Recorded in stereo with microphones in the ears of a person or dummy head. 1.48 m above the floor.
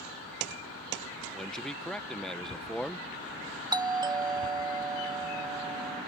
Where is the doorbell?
20° right (ahead or behind).